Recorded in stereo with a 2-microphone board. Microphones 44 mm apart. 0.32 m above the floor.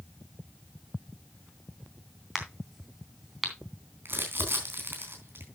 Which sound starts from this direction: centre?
A crack, at 2.4 s.